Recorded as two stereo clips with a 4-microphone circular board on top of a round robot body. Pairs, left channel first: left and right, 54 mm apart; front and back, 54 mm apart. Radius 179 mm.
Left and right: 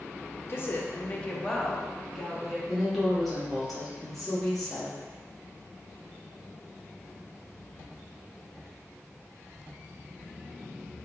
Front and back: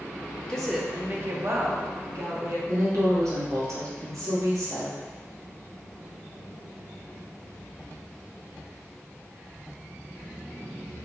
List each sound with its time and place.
0.5 s a woman speaking: 75° left, 0.7 m; by 2.6 s 175° right, 1.4 m
2.7 s a woman speaking: 175° left, 1.5 m